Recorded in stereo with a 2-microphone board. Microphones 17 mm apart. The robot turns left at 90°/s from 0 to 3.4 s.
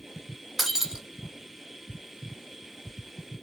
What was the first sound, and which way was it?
Breaking glass, 5° right.